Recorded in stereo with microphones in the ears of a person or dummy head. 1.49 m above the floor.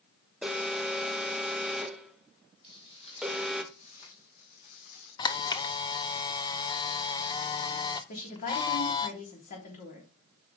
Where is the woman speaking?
45° left (ahead or behind), 3 m.